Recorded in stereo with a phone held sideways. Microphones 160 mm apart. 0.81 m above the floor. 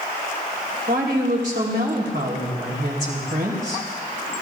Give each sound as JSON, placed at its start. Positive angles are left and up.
{"t": 0.9, "sound": "a woman speaking", "side_deg": -80, "distance_m": 3.5}